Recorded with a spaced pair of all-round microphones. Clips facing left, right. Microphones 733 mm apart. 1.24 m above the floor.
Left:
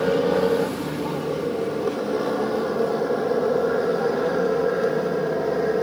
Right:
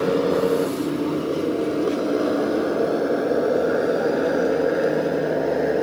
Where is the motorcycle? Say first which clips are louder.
Even; 25° left (ahead or behind); by 5.8 s 40° left (ahead or behind).